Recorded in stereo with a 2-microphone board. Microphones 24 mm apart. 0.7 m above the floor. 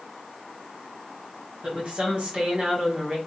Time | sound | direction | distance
1.6 | a woman speaking | 50° right (ahead or behind) | 1.4 m